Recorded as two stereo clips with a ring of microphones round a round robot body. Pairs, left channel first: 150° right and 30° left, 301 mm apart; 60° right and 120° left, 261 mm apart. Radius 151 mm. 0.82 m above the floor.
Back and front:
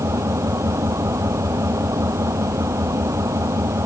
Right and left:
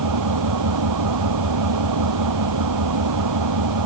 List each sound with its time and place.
0.0 s an engine running: 110° left